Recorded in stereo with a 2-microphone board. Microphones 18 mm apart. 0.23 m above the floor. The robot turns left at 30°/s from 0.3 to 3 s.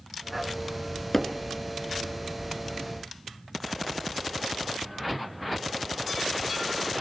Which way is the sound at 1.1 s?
25° left (ahead or behind).